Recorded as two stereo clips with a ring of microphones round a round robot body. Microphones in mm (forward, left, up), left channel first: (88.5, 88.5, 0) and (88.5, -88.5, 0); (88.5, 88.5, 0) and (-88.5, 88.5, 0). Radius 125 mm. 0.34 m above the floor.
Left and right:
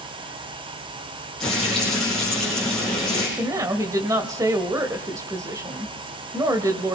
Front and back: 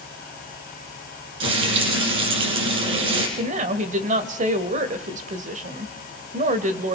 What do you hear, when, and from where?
1.4 s frying: straight behind, 5.5 m
3.4 s a woman speaking: 155° right, 1.4 m